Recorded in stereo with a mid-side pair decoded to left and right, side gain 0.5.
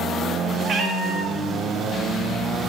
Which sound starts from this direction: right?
A cat meowing, at 0.6 s.